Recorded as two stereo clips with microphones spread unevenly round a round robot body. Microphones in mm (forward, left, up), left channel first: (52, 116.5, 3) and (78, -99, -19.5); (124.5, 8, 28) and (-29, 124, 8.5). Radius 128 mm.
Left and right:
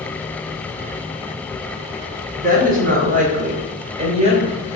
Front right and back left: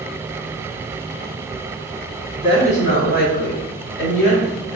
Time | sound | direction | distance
2.4 | a woman speaking | 105° right | 1.4 m